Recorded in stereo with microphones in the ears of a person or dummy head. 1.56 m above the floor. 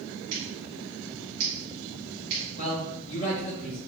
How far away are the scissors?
About 1.7 m.